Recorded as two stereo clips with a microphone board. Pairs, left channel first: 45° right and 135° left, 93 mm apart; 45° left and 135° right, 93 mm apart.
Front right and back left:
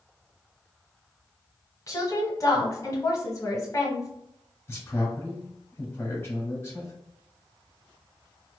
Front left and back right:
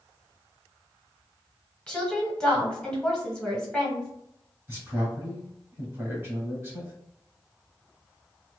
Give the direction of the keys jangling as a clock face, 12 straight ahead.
No keys jangling in this recording.